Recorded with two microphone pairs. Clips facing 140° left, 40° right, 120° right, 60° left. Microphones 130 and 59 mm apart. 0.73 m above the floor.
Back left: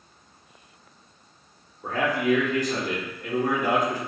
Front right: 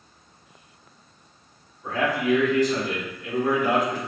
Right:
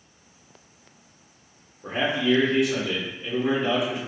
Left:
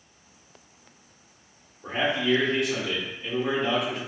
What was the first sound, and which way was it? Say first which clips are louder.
A man speaking: even, right 1 dB; 155° left.